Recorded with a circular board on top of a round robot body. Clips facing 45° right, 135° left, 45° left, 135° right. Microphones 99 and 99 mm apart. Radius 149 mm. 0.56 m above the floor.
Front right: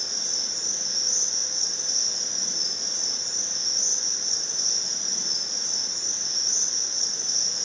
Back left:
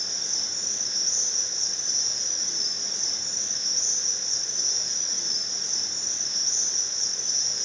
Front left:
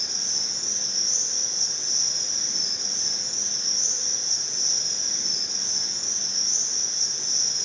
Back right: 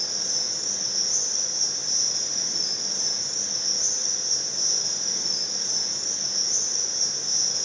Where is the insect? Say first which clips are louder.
Front right 2 dB, back right 3 dB; 50° right, 1.4 m.